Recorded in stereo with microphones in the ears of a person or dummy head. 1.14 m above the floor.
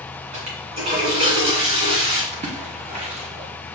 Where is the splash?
30° right (ahead or behind), 0.9 m.